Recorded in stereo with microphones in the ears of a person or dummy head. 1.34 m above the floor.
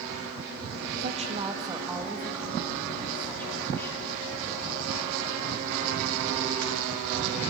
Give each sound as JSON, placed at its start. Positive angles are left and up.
{"t": 1.0, "sound": "a woman speaking", "side_deg": -40, "distance_m": 1.4}